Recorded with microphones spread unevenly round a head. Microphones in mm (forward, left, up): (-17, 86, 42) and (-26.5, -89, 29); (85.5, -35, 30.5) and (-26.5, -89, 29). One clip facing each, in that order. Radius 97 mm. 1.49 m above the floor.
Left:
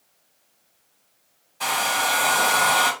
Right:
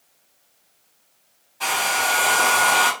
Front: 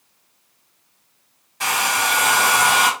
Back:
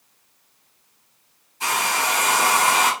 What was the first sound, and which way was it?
A hair dryer, 10° left.